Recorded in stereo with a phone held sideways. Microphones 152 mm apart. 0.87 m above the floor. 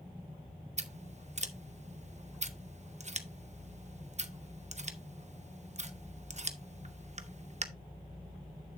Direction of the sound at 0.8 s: 50° right (ahead or behind).